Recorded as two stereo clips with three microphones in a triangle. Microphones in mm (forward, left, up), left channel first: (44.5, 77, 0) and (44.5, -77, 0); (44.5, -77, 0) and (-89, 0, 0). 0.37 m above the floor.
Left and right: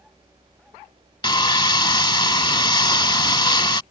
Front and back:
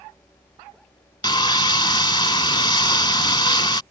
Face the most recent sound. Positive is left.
turn(degrees=25)